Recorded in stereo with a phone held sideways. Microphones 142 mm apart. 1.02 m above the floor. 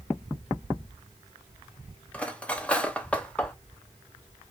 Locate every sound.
2.1 s cutlery clinking: 10° left (ahead or behind), 0.6 m